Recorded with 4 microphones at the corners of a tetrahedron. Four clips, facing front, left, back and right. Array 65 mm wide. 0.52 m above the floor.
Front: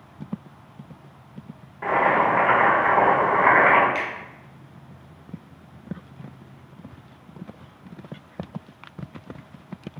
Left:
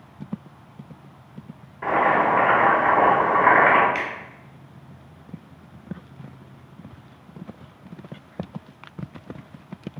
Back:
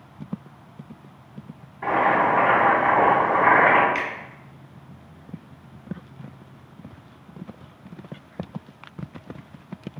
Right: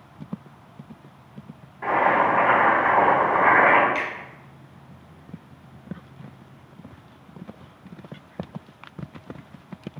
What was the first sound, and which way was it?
Boiling, 15° left.